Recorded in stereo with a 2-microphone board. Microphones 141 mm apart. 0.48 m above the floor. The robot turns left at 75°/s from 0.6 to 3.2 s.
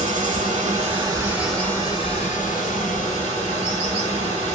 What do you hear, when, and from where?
0.0 s running water: 110° right, 2.5 m; by 4.5 s 55° left, 2.5 m